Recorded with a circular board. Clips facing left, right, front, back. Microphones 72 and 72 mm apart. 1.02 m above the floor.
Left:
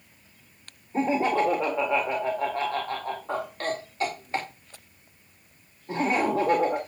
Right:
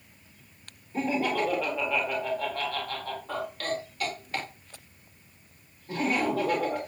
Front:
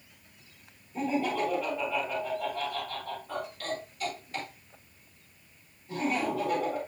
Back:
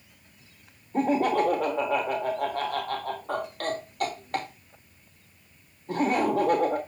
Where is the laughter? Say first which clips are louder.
Left 4 dB, back 6 dB; 150° left, 1.8 m.